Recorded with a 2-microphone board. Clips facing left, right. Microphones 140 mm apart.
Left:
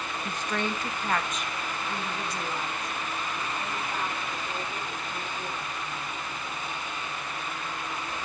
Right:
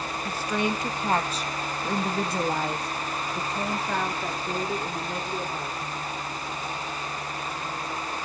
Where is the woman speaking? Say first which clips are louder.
Right 4 dB; 5° right (ahead or behind), 1.8 m; by 6.1 s 80° right, 4 m.